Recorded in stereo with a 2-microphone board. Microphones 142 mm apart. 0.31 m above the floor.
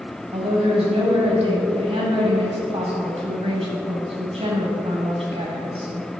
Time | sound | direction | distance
0.3 | a woman speaking | 50° right (ahead or behind) | 1.7 m